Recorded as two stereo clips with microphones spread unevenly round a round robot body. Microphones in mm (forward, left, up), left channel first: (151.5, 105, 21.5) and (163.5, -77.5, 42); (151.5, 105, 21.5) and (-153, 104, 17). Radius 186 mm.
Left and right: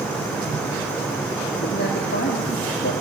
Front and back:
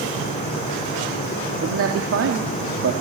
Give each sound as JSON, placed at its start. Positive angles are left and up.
{"t": 1.6, "sound": "a man speaking", "azimuth_deg": 135, "distance_m": 2.5}